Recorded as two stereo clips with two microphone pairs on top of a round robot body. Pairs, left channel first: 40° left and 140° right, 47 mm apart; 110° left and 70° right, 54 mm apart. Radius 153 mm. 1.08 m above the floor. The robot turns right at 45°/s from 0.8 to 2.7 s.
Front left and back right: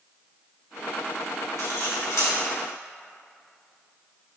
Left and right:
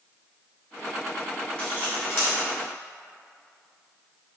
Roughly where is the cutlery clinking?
Ahead left.